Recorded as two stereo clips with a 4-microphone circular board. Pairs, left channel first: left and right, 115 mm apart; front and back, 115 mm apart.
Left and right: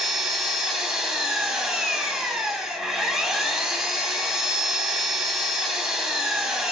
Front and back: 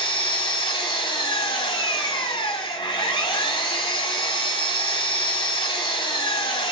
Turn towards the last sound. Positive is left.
turn(degrees=-5)